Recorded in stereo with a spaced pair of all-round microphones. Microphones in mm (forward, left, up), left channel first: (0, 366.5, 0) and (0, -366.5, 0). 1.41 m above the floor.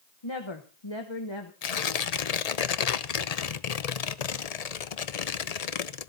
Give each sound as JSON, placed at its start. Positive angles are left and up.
{"t": 0.2, "sound": "a woman speaking", "side_deg": 40, "distance_m": 1.1}
{"t": 1.6, "sound": "tearing paper", "side_deg": 60, "distance_m": 0.7}